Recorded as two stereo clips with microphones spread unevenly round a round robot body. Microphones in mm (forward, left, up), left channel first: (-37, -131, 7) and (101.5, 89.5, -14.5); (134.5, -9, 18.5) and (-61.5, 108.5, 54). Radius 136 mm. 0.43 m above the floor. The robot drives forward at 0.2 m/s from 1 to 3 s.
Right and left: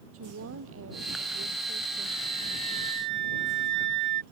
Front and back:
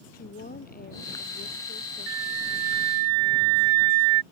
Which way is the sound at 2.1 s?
150° left.